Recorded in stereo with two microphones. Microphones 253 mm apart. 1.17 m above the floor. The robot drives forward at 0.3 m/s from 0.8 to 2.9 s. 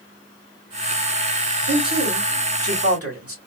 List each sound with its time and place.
1.7 s a man speaking: 70° right (ahead or behind), 2.5 m; by 3.4 s 65° right (ahead or behind), 2.5 m